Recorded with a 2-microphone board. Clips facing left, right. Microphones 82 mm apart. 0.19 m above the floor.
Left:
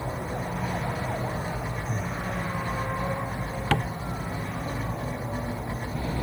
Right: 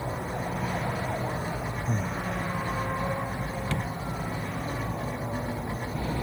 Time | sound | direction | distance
1.9 | breathing | 60° right (ahead or behind) | ?
3.7 | tapping | 85° left | ?